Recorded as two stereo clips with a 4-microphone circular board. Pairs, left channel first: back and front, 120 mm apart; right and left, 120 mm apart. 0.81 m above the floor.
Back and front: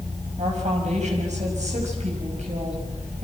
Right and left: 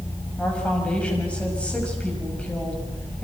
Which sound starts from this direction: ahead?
A woman speaking, at 0.4 s.